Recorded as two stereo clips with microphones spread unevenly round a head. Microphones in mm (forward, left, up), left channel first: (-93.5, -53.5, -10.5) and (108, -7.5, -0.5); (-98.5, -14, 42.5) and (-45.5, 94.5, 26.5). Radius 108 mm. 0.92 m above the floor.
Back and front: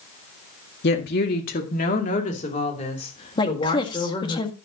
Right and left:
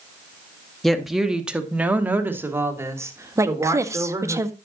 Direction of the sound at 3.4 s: 125° left.